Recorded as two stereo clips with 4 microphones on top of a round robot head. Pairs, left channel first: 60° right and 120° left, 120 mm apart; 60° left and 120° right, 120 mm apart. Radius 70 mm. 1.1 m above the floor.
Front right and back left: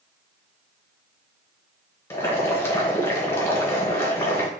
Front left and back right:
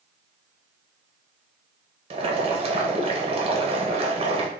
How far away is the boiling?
About 1.0 m.